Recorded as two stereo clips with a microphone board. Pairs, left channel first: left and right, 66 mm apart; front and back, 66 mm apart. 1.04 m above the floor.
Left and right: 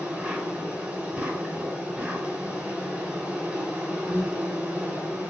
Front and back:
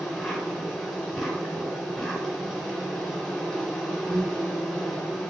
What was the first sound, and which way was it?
An insect, 85° right.